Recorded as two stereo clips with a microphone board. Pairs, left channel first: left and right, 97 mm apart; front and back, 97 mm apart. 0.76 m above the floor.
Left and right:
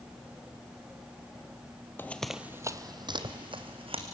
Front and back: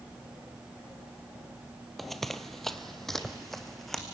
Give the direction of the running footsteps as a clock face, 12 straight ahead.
9 o'clock.